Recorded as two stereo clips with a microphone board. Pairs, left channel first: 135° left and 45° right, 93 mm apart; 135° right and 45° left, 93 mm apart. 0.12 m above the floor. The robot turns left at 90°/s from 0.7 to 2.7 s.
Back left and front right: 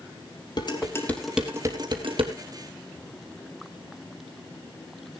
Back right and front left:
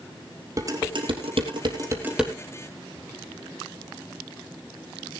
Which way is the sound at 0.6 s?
100° left.